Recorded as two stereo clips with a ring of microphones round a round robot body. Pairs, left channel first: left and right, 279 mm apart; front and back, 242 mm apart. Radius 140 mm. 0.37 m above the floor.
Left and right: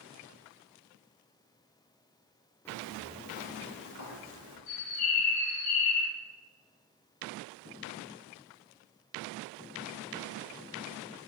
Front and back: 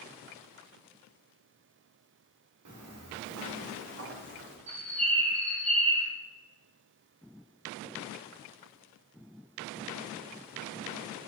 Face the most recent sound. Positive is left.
turn(degrees=120)